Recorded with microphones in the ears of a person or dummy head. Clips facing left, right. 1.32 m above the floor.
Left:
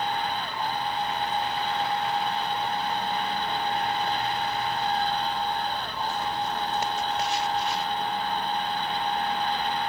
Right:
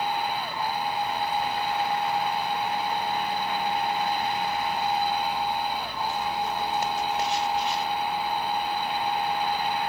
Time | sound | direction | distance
0.0 | a machine running | 10° right (ahead or behind) | ?